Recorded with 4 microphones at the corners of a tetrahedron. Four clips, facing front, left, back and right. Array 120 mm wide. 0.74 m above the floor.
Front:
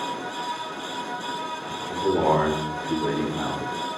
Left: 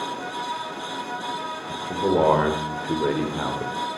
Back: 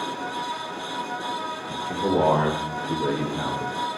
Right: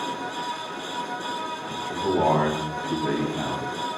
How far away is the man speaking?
About 2.5 m.